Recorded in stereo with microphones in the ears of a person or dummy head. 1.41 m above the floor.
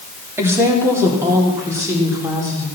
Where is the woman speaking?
20° right (ahead or behind), 2.5 m; by 2.7 s 25° right (ahead or behind), 4 m.